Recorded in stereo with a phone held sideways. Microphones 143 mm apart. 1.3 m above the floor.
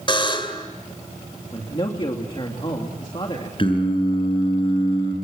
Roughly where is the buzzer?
Left.